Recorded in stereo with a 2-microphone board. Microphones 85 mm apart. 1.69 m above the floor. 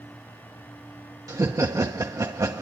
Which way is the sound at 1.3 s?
40° right (ahead or behind).